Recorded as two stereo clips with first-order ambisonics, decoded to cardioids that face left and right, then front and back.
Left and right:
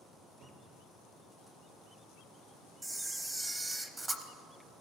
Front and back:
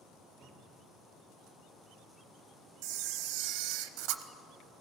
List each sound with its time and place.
0.4 s a cupboard door: 120° right, 3 m
2.8 s a camera shutter: 170° right, 0.6 m